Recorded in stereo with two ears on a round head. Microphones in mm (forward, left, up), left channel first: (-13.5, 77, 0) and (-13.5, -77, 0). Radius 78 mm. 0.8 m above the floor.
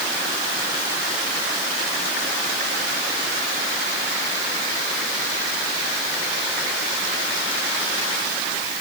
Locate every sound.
Only background noise.